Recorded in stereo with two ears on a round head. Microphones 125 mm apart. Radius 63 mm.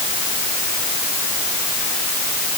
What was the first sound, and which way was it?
Only background noise.